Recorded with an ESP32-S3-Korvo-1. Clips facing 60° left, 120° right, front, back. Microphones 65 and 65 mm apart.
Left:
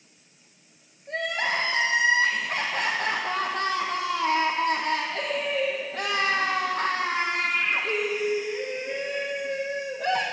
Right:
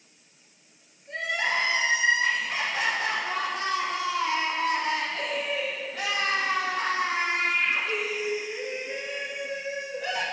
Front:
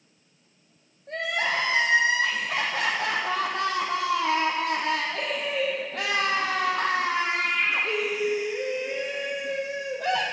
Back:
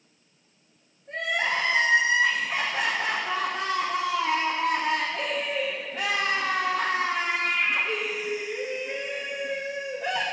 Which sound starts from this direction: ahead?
Crying, at 1.1 s.